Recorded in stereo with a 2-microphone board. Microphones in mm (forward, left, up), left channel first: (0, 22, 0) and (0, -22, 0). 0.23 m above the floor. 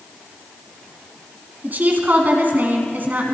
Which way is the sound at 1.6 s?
40° right (ahead or behind).